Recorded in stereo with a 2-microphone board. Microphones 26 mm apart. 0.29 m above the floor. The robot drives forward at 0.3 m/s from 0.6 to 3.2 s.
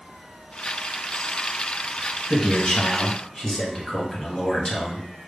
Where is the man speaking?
25° left (ahead or behind), 1.7 m.